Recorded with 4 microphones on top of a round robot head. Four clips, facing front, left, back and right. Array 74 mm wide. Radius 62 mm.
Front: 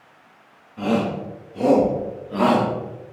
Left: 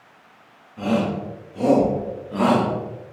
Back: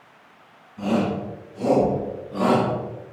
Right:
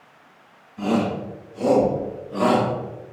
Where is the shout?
35° left, 3 m; by 3.1 s 25° left, 1.7 m.